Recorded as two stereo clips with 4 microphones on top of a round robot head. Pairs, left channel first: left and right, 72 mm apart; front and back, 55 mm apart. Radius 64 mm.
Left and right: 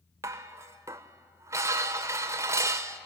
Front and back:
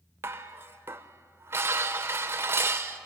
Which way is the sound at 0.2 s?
140° right.